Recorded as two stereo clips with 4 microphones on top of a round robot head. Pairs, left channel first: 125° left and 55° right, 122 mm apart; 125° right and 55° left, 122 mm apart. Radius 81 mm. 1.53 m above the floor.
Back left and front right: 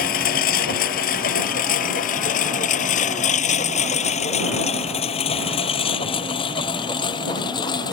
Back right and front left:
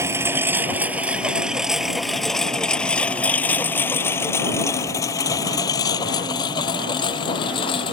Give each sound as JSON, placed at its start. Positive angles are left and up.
{"t": 0.0, "sound": "a lawn mower", "azimuth_deg": 125}